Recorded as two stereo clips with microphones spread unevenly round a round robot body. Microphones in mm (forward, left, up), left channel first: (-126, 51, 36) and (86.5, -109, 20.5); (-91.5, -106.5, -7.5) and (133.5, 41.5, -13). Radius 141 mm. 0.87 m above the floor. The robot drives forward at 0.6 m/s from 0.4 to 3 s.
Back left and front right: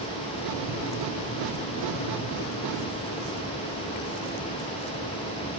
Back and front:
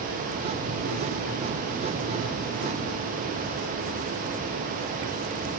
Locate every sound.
Only background noise.